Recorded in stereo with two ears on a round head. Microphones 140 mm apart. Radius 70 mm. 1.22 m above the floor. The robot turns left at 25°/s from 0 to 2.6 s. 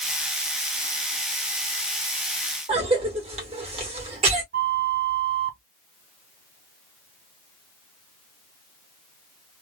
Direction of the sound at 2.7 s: 40° right (ahead or behind).